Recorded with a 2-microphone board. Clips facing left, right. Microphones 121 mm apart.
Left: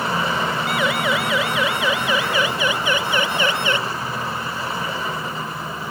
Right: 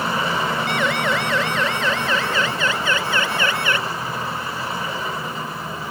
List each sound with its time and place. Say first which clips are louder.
0.7 s a siren: even; 5° left (ahead or behind); by 3.8 s 25° left (ahead or behind)